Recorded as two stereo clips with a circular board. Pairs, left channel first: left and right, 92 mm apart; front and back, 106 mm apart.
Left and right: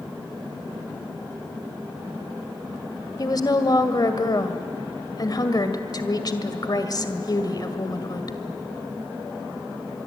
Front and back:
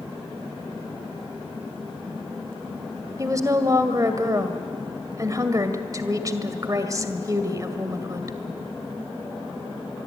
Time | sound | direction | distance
3.2 | a woman speaking | 125° left | 2 m